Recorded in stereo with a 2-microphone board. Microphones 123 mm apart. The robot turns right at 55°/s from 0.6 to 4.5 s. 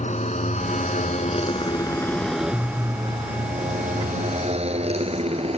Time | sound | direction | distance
0.0 | a motorcycle | 75° left (ahead or behind) | ?